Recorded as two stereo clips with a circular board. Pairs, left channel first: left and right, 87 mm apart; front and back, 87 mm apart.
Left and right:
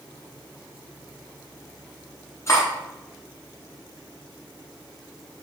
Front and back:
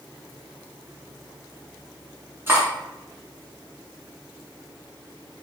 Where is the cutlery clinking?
125° left, 1.2 m.